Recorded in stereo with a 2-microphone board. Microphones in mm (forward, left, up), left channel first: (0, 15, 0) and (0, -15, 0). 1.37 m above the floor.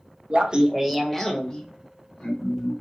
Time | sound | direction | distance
0.3 | laughter | 40° right (ahead or behind) | 0.6 m